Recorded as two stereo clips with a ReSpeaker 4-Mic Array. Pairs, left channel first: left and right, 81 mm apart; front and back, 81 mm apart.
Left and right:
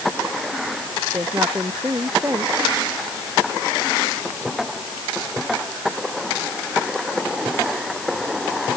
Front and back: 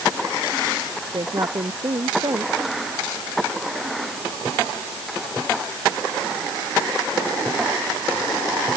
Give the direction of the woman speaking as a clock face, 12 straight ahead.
5 o'clock.